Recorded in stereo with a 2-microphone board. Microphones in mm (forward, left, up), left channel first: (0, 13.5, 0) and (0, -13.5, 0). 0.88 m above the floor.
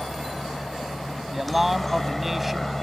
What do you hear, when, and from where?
0.0 s a helicopter: 5° right (ahead or behind); by 2.8 s 5° left (ahead or behind)
1.3 s a man speaking: 5° right (ahead or behind)